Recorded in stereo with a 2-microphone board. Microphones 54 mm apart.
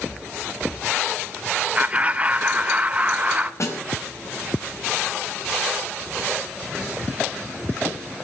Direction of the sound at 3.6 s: 60° left (ahead or behind).